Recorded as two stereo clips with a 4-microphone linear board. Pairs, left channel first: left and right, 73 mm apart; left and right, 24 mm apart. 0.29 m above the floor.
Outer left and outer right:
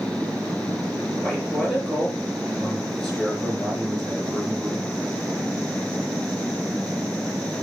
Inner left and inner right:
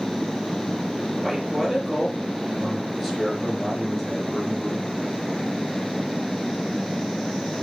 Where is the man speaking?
Centre (ahead or behind), 5.5 m.